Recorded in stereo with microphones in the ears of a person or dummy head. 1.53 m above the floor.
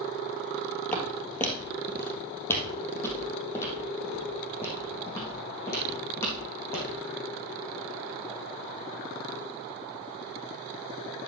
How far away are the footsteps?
About 2 m.